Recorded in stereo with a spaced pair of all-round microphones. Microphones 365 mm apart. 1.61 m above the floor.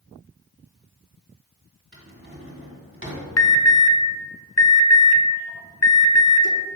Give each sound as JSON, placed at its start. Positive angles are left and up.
{"t": 1.9, "sound": "a drawer", "side_deg": -35, "distance_m": 1.9}
{"t": 3.4, "sound": "an alarm", "side_deg": 45, "distance_m": 0.7}